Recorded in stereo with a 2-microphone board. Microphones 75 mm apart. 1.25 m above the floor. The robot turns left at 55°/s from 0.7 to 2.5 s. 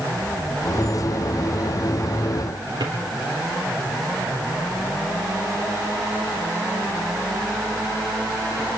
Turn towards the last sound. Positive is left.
turn(degrees=-75)  # may be behind; listen again after turning